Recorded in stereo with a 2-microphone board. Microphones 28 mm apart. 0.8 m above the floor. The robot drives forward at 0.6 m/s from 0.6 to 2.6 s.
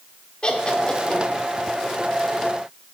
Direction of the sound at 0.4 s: 35° left (ahead or behind).